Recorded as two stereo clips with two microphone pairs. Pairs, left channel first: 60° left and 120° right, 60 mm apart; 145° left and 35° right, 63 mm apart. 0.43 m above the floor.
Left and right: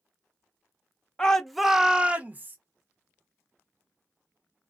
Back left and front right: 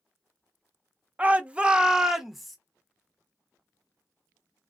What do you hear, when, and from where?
1.2 s a shout: straight ahead, 0.8 m; by 2.6 s 125° right, 0.8 m